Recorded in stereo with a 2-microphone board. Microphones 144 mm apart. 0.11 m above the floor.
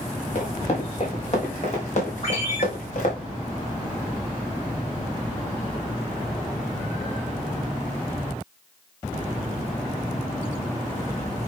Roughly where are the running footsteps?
Left.